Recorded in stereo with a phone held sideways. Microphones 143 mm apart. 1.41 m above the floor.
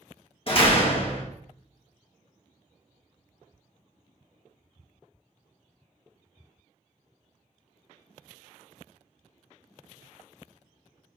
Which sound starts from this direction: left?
A door slam, at 0.5 s.